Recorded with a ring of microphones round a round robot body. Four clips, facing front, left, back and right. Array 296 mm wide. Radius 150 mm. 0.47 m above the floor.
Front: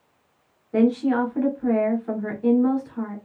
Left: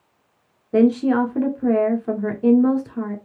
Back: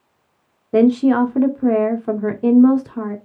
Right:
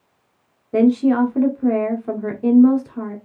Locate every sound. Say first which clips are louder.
0.7 s a woman speaking: right 1 dB, back 6 dB; 175° left, 1.0 m